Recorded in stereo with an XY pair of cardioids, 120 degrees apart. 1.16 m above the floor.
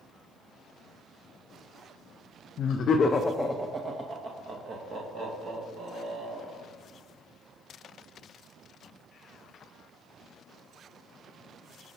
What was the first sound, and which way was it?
Laughter, 60° left.